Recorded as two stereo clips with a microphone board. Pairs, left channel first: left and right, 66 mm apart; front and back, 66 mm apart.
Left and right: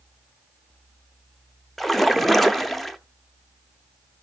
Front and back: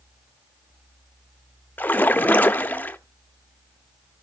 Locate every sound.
1.8 s a splash: straight ahead, 0.5 m